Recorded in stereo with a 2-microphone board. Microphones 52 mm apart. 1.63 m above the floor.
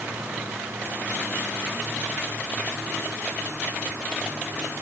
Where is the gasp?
No gasp in this recording.